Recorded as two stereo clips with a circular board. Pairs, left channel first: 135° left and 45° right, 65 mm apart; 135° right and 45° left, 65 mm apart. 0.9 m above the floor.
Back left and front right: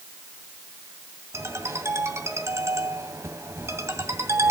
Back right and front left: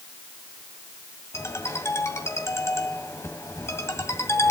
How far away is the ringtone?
About 2 m.